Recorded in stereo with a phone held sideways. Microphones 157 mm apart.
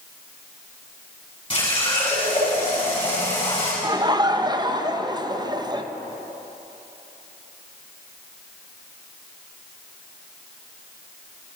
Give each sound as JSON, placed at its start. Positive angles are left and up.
{"t": 1.5, "sound": "a running tap", "side_deg": 35, "distance_m": 5.5}
{"t": 3.8, "sound": "laughter", "side_deg": -25, "distance_m": 0.7}